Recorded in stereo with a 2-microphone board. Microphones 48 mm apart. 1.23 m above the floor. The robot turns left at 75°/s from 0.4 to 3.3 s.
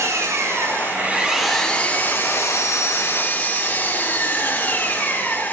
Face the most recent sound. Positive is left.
turn(degrees=40)